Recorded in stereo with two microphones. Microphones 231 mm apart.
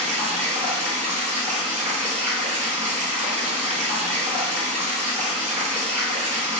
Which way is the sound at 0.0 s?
30° right (ahead or behind).